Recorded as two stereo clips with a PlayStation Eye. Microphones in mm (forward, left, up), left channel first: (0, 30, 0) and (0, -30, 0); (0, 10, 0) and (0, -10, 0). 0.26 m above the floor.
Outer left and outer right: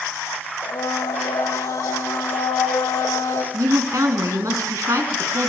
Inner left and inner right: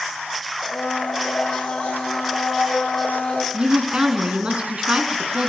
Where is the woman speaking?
65° right (ahead or behind), 3 m.